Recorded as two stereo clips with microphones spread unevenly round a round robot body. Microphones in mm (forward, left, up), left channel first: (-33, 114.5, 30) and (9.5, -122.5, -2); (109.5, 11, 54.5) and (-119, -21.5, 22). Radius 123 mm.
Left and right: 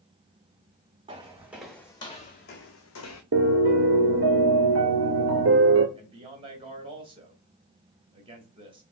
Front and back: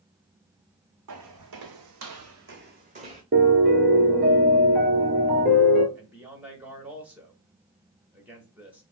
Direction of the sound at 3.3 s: 115° right.